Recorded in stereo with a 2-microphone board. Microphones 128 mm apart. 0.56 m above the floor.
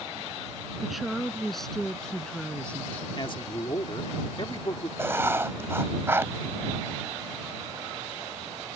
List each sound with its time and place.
0.8 s a woman speaking: centre (ahead or behind); by 3.1 s 10° left (ahead or behind)
3.2 s a man speaking: 40° left (ahead or behind)
5.0 s writing: 20° right (ahead or behind)